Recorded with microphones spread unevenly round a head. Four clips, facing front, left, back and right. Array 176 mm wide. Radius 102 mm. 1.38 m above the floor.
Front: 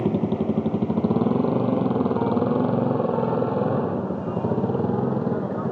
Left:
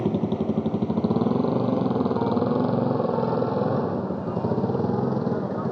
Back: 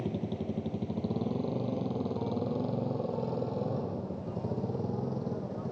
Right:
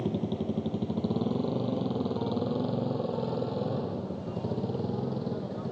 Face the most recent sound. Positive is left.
turn(degrees=35)